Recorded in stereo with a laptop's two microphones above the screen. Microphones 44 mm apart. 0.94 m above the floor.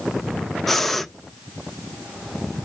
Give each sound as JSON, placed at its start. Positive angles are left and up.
{"t": 0.7, "sound": "breathing", "side_deg": 5, "distance_m": 0.5}